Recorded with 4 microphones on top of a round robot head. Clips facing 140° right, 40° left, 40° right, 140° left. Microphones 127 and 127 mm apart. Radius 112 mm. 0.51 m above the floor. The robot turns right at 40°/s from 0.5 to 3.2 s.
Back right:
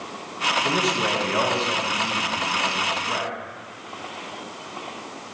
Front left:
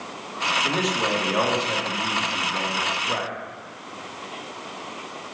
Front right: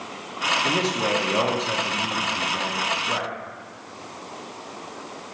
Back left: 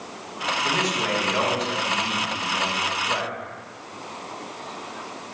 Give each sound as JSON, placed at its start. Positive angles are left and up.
{"t": 0.6, "sound": "a man speaking", "azimuth_deg": -60, "distance_m": 1.1}